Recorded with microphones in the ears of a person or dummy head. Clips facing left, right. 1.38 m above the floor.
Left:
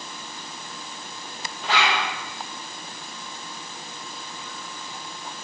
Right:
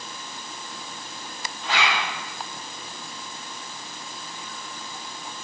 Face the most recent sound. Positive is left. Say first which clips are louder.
# left 2 dB
turn(degrees=65)  # may be behind; listen again after turning